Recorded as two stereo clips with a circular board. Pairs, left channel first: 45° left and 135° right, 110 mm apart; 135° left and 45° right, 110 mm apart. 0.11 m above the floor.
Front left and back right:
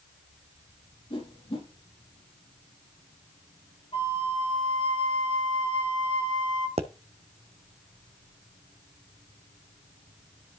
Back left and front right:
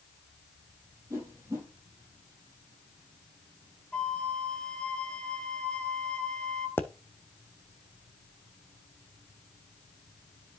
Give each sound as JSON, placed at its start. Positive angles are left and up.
{"t": 1.1, "sound": "a whoosh", "azimuth_deg": 15, "distance_m": 4.0}
{"t": 3.9, "sound": "a flute", "azimuth_deg": 55, "distance_m": 1.4}
{"t": 6.8, "sound": "a pop", "azimuth_deg": -155, "distance_m": 0.8}